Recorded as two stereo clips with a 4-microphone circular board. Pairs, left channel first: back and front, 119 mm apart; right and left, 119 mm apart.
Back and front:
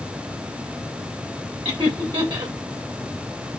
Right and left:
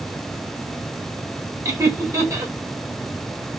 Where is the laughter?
30° left, 2.0 m.